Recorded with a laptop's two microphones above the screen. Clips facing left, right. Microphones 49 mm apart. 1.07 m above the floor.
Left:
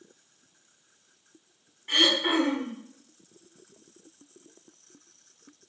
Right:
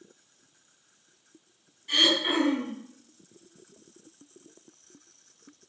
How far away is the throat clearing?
About 0.9 m.